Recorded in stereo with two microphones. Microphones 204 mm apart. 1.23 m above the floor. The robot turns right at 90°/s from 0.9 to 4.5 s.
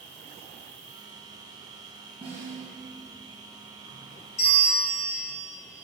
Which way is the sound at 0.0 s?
70° left.